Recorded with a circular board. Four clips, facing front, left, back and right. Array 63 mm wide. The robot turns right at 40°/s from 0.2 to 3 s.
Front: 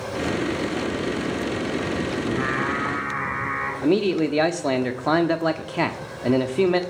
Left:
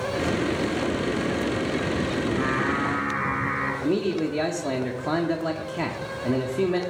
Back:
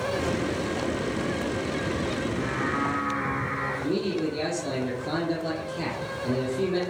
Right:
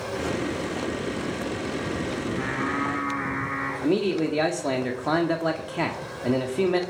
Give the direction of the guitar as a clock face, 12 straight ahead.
No guitar in this recording.